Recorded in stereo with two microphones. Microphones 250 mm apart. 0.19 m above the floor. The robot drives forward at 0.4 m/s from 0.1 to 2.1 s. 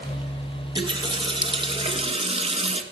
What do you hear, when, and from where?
0.8 s a running tap: 15° right (ahead or behind), 2 m; by 2.8 s 20° right (ahead or behind), 1.8 m